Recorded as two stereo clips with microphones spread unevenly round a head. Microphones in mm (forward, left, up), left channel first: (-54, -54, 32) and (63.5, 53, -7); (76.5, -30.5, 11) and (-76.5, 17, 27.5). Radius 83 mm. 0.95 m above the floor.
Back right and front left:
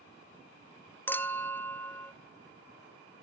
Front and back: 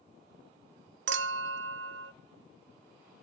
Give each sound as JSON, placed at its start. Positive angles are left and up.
{"t": 1.1, "sound": "a clink", "azimuth_deg": 145, "distance_m": 0.5}